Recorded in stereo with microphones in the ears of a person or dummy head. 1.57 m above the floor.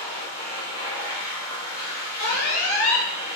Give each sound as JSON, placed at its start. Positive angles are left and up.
{"t": 0.0, "sound": "a machine running", "side_deg": -10, "distance_m": 1.8}
{"t": 2.2, "sound": "an alarm", "side_deg": 60, "distance_m": 1.3}